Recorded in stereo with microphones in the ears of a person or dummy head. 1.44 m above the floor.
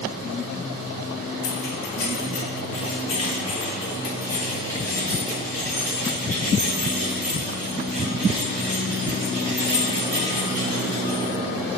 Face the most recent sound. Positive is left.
turn(degrees=-15)  # may be behind; listen again after turning